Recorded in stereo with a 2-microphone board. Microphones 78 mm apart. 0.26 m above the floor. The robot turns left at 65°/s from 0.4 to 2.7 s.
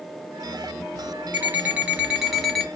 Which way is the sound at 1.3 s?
20° right (ahead or behind).